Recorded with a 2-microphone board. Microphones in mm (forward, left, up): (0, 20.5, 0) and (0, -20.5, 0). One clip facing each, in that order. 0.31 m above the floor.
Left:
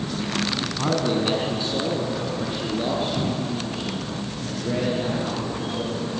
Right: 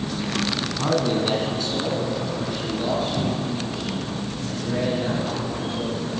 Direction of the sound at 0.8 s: 5° left (ahead or behind).